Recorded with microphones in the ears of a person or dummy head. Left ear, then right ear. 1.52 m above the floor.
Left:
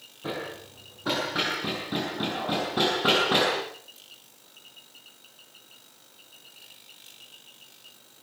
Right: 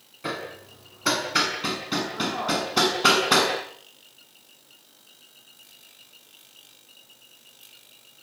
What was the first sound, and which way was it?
Hammering, 70° right (ahead or behind).